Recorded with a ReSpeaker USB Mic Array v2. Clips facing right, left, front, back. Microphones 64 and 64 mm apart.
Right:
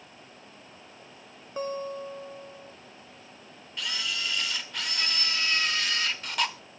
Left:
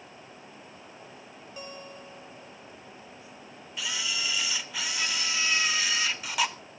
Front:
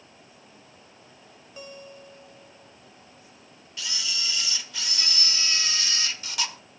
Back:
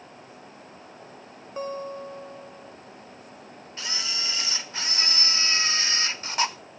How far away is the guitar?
About 1.0 m.